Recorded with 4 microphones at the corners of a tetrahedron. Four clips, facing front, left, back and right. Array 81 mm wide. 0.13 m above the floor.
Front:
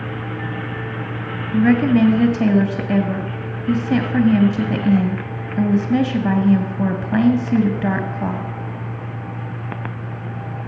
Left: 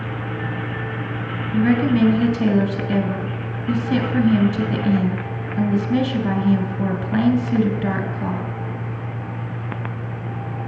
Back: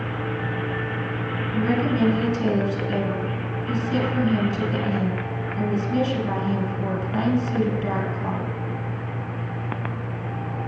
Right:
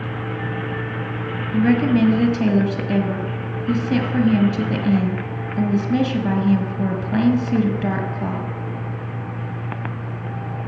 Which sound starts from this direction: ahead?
A woman speaking, at 1.5 s.